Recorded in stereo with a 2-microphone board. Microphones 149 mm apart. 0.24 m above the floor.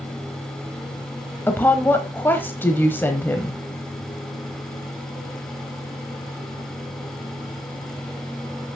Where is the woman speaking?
15° left (ahead or behind), 0.9 m.